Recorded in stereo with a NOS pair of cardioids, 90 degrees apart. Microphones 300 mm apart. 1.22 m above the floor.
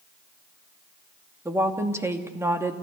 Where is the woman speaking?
10° right, 2.5 m.